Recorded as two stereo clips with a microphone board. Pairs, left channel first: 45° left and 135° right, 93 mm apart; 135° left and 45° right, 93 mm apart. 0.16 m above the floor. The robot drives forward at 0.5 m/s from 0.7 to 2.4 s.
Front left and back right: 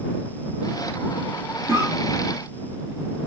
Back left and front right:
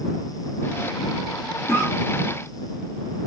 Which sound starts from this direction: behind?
A cough, at 1.7 s.